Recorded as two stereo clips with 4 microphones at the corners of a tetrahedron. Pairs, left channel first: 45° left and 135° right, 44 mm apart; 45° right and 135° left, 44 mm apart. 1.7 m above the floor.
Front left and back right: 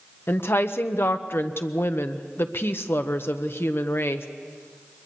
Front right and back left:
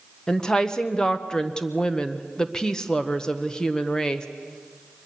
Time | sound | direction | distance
0.3 | a woman speaking | 25° left | 1.1 m